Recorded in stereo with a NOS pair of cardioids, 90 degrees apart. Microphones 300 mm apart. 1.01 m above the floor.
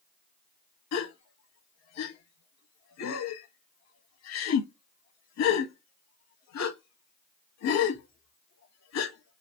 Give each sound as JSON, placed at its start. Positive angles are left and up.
{"t": 0.9, "sound": "a gasp", "azimuth_deg": 60, "distance_m": 0.7}